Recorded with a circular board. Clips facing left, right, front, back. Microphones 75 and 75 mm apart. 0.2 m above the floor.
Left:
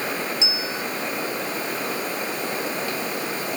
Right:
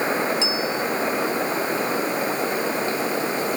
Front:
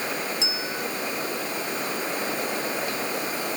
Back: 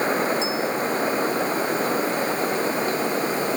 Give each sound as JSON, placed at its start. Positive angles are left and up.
{"t": 0.4, "sound": "a bell", "azimuth_deg": 20}